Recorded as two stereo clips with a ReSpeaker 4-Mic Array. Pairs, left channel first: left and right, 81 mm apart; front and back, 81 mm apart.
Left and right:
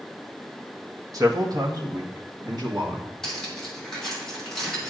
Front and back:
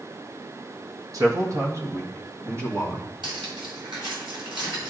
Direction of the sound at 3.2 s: 175° left.